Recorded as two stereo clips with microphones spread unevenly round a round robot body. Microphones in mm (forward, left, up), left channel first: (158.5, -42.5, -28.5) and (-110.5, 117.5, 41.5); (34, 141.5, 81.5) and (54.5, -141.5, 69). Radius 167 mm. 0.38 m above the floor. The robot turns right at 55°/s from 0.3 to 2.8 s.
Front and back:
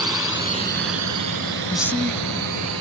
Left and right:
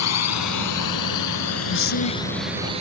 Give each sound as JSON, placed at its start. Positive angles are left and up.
{"t": 0.0, "sound": "a drone", "azimuth_deg": 65}
{"t": 1.7, "sound": "a man speaking", "azimuth_deg": 50}